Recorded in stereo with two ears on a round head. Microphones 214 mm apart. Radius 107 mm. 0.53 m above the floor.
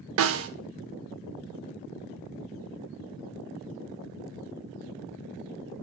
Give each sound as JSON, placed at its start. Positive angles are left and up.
{"t": 0.2, "sound": "a snare drum", "side_deg": -60, "distance_m": 0.7}